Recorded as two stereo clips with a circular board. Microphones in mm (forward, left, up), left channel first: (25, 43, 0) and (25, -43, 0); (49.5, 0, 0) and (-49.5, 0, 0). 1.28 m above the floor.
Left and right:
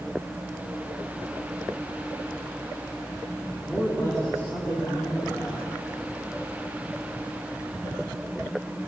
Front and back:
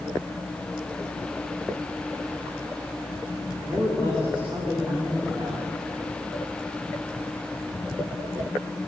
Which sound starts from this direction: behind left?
A man speaking, at 3.6 s.